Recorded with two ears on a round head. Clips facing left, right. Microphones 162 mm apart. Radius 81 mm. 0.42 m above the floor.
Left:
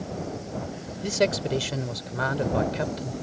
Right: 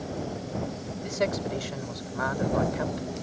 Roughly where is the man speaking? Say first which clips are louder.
Left 4 dB; left.